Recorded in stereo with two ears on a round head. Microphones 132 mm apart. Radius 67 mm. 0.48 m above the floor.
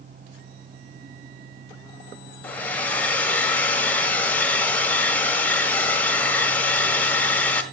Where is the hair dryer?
10° left (ahead or behind), 1.5 m.